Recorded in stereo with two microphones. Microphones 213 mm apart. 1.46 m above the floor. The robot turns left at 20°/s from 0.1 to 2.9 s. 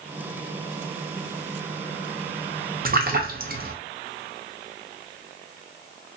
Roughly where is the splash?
Right.